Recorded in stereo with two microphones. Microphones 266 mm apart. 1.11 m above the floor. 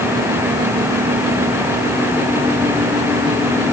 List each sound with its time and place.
Only background noise.